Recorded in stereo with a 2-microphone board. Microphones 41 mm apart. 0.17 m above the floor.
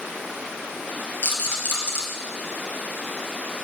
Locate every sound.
1.2 s a rattle: 65° left (ahead or behind), 3 m